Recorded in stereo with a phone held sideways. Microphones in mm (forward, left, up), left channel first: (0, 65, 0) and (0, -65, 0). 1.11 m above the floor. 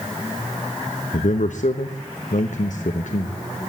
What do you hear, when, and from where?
1.1 s a man speaking: 70° left (ahead or behind), 0.9 m